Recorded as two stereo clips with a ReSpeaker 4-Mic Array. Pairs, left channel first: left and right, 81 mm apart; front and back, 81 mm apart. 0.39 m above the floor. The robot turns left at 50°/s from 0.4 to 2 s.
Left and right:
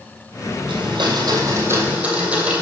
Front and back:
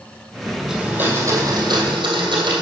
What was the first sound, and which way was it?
A blender, 95° right.